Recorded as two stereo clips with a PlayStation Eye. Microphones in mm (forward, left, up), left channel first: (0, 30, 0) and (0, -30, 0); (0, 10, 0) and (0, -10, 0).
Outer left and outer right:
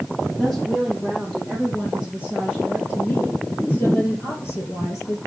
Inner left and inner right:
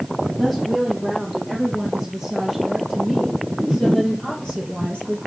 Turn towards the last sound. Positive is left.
turn(degrees=55)  # may be behind; listen again after turning